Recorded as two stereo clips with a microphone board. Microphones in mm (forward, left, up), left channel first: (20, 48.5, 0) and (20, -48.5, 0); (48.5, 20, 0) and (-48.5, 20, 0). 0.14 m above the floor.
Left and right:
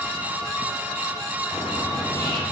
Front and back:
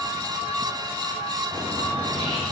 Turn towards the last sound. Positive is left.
turn(degrees=145)